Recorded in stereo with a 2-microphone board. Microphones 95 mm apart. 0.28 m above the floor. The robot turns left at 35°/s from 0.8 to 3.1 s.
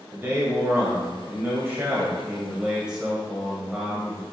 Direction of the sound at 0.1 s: 25° right (ahead or behind).